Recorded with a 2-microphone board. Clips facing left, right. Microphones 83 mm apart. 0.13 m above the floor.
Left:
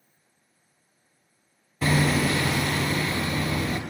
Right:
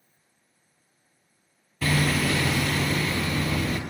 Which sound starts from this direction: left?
Hammering, at 1.8 s.